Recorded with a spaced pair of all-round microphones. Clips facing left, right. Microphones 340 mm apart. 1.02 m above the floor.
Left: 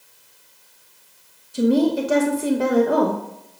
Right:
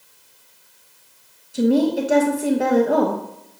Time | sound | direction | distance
1.5 | a woman speaking | 5° left (ahead or behind) | 0.9 m